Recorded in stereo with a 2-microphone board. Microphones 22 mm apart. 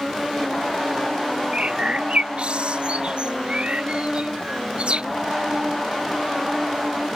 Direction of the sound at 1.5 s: 60° right (ahead or behind).